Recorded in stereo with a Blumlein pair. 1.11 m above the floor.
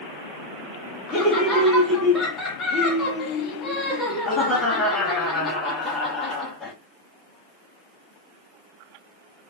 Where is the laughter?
15° left, 1.0 m.